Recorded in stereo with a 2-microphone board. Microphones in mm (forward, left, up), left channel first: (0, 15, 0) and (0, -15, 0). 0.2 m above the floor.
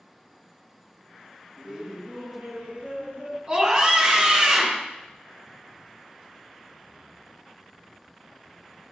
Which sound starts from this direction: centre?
Laughter, at 1.6 s.